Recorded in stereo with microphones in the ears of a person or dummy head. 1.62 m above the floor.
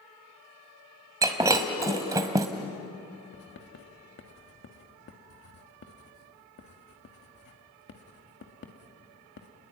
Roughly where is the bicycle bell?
No bicycle bell in this recording.